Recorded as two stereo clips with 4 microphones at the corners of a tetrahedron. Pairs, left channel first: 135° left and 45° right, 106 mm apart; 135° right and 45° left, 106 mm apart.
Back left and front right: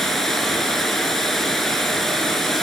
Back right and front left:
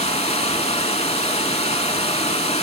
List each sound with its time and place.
0.0 s running water: 140° right, 0.8 m